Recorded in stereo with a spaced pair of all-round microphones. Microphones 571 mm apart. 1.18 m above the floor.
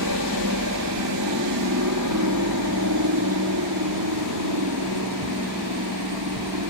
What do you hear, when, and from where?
0.0 s a helicopter: 30° right (ahead or behind); by 6.7 s 35° right (ahead or behind)